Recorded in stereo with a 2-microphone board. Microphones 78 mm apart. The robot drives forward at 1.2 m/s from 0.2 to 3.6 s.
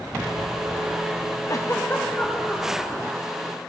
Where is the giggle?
50° left (ahead or behind), 0.8 m; by 2.9 s 15° left (ahead or behind), 2.5 m.